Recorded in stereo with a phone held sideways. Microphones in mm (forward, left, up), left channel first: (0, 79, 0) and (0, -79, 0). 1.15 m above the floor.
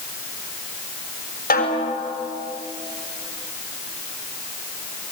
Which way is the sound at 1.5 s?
75° left (ahead or behind).